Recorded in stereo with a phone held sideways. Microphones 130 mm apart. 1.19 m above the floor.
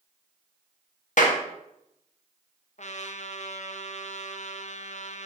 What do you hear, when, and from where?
1.2 s a clap: 70° left (ahead or behind), 1.7 m
2.8 s a trumpet: 60° left (ahead or behind), 0.9 m